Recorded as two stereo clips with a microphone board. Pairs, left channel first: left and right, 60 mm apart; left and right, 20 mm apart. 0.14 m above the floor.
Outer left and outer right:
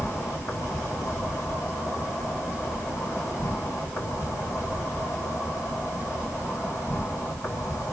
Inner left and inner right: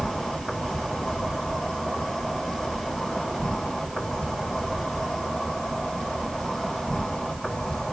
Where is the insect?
55° left (ahead or behind), 2.5 m.